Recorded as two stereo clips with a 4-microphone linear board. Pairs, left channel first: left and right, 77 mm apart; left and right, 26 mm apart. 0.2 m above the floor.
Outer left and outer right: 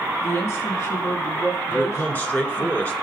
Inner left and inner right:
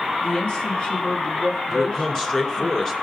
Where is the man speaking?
20° left (ahead or behind), 2 m.